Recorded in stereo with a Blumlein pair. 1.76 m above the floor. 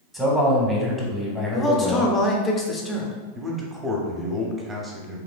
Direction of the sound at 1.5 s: 20° left.